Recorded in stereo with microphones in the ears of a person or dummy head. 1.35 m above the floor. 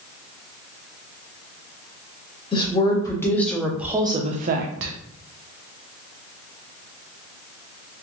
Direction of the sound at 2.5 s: 25° left (ahead or behind).